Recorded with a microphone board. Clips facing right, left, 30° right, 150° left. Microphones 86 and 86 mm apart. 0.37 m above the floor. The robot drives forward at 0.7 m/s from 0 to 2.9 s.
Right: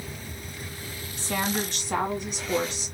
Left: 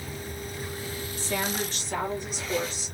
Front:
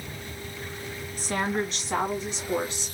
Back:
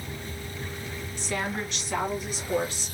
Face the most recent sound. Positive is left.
turn(degrees=-100)